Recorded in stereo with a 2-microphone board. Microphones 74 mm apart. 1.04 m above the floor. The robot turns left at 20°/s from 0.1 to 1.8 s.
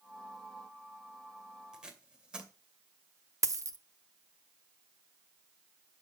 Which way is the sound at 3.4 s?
45° right (ahead or behind).